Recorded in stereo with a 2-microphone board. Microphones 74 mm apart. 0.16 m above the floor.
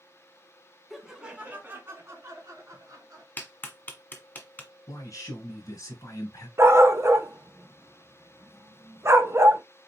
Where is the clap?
25° left (ahead or behind), 1.4 m.